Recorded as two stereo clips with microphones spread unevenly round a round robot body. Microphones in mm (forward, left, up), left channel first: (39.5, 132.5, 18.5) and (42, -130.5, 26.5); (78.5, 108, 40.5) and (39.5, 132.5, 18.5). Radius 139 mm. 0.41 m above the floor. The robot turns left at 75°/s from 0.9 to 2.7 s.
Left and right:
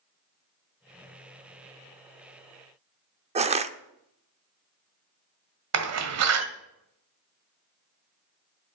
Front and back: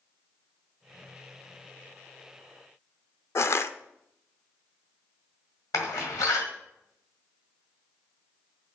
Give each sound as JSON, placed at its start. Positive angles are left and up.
{"t": 3.4, "sound": "crushing", "azimuth_deg": -45, "distance_m": 0.8}
{"t": 5.7, "sound": "a door slam", "azimuth_deg": -65, "distance_m": 1.6}